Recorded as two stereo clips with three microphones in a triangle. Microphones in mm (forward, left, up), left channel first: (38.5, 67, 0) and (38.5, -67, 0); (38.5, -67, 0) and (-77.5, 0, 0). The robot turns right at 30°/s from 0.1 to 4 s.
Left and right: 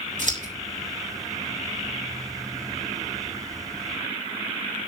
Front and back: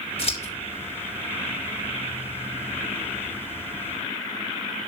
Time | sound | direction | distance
0.2 | scissors | 75° right | 4 m